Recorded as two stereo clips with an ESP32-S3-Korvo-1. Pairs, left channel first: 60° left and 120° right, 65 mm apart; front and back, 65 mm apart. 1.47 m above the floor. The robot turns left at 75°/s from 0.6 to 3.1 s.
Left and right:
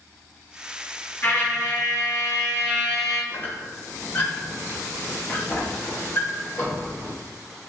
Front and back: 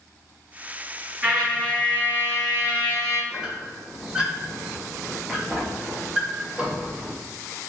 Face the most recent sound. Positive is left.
turn(degrees=110)